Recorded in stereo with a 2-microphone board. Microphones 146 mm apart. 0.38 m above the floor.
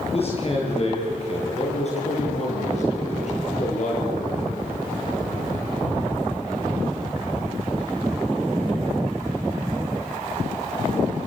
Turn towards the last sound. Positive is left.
turn(degrees=55)  # may be behind; listen again after turning